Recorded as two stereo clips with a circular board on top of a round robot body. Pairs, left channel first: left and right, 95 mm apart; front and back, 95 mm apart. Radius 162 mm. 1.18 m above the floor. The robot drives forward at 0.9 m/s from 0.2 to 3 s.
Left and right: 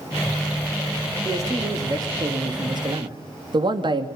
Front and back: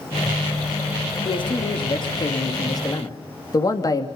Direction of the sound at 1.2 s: 30° right.